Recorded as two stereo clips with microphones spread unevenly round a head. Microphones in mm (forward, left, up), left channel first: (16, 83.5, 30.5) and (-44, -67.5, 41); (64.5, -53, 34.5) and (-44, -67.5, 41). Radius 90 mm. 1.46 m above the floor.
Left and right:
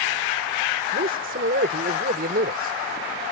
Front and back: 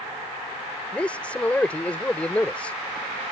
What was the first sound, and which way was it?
A man speaking, 70° right.